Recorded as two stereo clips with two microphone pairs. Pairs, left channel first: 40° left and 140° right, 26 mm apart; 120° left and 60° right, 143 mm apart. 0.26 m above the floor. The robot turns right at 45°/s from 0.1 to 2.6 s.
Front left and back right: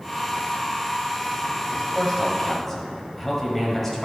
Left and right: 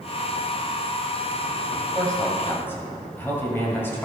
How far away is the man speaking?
About 1.5 m.